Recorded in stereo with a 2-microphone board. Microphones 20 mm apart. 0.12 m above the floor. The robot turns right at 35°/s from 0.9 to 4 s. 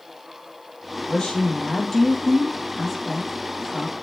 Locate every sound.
1.1 s a woman speaking: 125° left, 3.5 m; by 3.9 s 135° right, 3.5 m